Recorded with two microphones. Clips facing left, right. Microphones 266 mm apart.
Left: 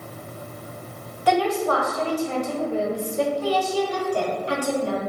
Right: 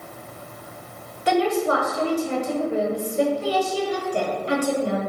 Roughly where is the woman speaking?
Right.